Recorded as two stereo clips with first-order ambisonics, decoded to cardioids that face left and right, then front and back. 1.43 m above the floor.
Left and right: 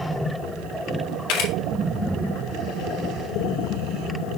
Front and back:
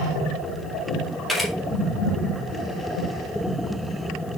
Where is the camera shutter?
90° left, 1.9 m.